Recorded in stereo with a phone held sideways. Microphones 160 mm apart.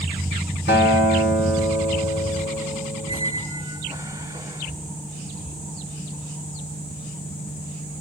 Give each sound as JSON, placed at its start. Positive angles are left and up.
{"t": 0.7, "sound": "a guitar", "side_deg": 85, "distance_m": 4.0}
{"t": 3.1, "sound": "a squeak", "side_deg": -20, "distance_m": 1.1}